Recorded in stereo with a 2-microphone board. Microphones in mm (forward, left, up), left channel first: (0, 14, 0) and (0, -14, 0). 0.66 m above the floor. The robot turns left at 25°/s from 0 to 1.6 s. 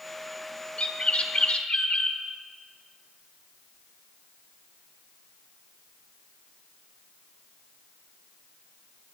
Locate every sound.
0.8 s a bird: 40° left (ahead or behind), 1.1 m